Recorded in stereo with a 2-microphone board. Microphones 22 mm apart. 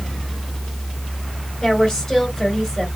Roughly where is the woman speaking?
Left.